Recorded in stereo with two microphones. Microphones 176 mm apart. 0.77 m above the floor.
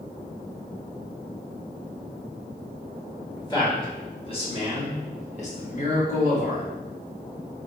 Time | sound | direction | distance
3.4 | a man speaking | 25° left (ahead or behind) | 1.7 m